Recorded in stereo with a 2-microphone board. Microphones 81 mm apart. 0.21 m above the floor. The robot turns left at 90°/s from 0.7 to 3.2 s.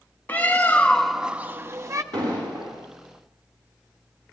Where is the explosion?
70° right, 8 m; by 2.7 s 125° right, 8 m.